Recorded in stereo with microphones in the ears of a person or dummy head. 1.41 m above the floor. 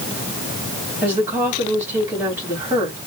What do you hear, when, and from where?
1.0 s a woman speaking: 15° right (ahead or behind), 3 m